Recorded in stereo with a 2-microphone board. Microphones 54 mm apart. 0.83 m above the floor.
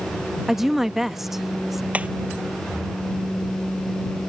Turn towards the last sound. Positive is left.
turn(degrees=-25)  # may be behind; listen again after turning